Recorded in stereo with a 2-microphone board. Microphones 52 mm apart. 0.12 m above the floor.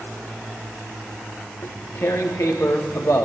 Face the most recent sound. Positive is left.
turn(degrees=60)  # may be behind; listen again after turning